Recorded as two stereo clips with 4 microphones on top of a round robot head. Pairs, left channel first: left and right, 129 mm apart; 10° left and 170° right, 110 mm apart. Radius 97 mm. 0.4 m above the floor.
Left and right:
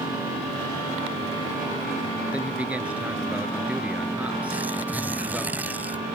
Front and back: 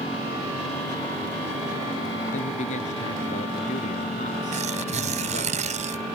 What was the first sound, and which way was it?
A man speaking, 10° right.